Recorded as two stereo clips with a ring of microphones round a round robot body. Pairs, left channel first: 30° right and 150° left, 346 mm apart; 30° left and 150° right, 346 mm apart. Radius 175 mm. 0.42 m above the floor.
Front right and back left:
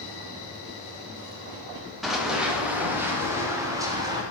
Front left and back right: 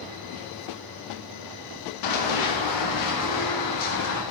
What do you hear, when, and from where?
2.0 s running footsteps: 60° left, 3.5 m; by 4.2 s 70° left, 4.5 m